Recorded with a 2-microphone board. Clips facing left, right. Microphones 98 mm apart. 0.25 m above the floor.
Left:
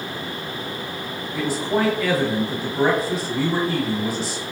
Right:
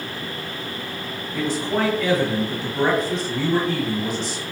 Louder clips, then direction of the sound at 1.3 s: Left 1 dB; 5° left (ahead or behind).